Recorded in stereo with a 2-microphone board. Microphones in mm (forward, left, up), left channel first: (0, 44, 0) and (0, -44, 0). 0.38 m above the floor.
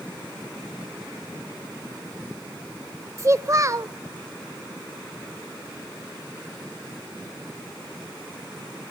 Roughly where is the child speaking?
Right.